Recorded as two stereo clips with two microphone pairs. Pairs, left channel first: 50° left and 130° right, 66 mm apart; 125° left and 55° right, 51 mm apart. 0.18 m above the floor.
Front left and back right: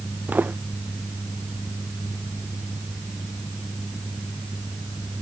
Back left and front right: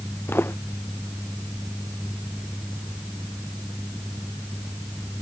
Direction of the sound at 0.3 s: 165° left.